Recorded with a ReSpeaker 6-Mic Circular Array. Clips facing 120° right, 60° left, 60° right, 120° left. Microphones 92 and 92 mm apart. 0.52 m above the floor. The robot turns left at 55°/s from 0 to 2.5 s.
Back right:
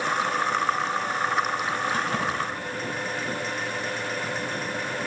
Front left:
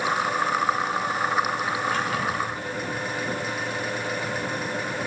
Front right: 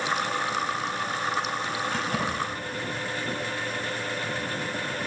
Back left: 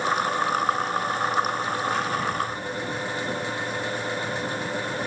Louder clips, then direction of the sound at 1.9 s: Front left 1 dB, back left 3 dB; 65° right.